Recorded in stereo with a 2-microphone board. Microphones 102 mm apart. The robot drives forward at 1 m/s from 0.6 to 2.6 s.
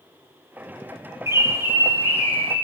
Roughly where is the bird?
Right.